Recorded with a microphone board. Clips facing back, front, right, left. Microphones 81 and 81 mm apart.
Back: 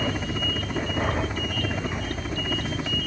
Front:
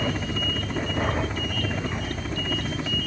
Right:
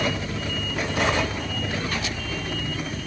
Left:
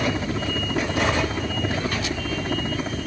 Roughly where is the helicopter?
Left.